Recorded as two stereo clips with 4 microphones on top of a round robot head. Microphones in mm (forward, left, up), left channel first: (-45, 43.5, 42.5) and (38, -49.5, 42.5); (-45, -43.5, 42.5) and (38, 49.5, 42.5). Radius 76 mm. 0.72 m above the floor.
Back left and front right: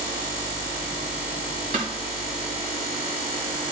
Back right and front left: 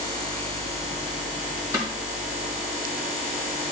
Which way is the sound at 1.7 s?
20° right.